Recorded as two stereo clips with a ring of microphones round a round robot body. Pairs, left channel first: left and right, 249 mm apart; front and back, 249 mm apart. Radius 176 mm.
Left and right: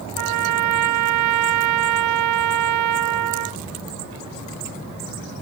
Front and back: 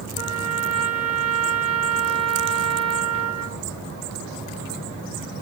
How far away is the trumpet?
About 0.8 m.